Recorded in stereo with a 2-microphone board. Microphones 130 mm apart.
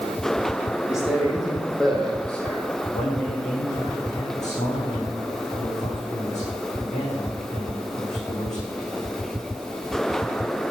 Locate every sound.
0.9 s a man speaking: 5° right (ahead or behind), 5.5 m; by 2.7 s 10° left (ahead or behind), 4.5 m
2.9 s a man speaking: 65° left (ahead or behind), 7 m